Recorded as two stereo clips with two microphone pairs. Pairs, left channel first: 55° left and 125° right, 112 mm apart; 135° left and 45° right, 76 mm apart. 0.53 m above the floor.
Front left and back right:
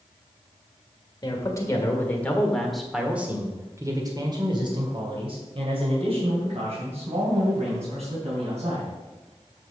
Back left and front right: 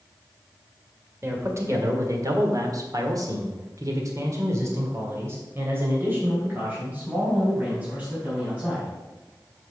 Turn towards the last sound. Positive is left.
turn(degrees=-115)